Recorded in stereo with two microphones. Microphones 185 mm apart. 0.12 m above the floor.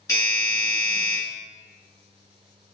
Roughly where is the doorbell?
Centre.